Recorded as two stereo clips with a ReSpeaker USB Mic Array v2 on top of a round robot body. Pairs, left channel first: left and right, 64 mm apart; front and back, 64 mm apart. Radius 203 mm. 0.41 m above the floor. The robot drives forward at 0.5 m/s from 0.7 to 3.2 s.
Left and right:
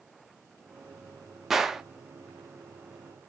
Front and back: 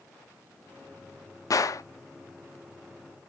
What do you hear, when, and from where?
1.5 s a gunshot: 5° right, 0.7 m; by 1.8 s 10° right, 0.6 m